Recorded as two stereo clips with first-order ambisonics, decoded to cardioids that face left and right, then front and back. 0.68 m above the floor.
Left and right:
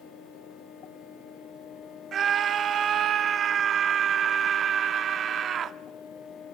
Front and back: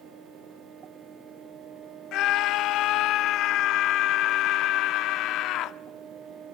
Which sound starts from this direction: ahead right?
A scream, at 2.1 s.